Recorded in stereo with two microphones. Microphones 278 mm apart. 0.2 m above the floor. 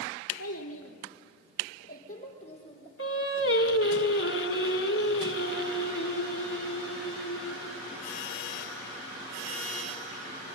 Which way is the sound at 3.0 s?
50° left (ahead or behind).